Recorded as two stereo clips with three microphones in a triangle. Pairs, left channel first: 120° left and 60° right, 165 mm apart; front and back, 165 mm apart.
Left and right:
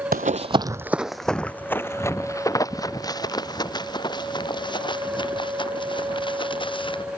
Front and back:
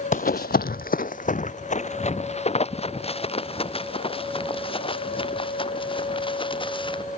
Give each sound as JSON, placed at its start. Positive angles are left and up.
{"t": 0.1, "sound": "running footsteps", "azimuth_deg": -35}